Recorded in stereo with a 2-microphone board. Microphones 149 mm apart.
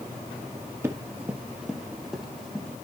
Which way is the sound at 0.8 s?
15° right (ahead or behind).